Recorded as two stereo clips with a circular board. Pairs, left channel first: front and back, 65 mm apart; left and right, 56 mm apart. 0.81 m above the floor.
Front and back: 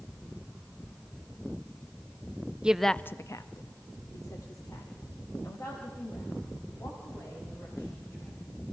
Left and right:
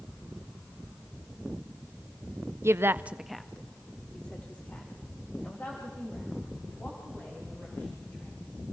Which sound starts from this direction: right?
A woman speaking, at 2.6 s.